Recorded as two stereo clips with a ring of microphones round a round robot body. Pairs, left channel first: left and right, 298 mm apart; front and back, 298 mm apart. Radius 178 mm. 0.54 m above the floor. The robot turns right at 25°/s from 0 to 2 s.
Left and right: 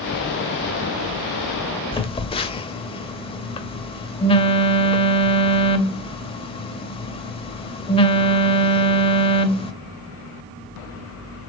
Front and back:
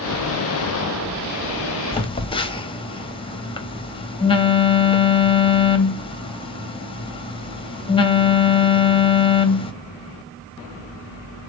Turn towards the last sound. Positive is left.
turn(degrees=45)